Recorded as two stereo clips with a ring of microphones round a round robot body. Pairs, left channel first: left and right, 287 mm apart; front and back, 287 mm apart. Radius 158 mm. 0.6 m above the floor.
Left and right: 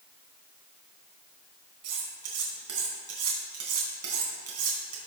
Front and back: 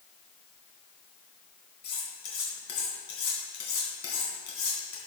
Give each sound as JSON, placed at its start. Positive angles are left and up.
{"t": 1.8, "sound": "cutlery clinking", "azimuth_deg": -50, "distance_m": 3.5}